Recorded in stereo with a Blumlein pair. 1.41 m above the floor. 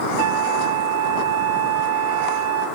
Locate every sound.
0.2 s a flute: 55° right, 0.6 m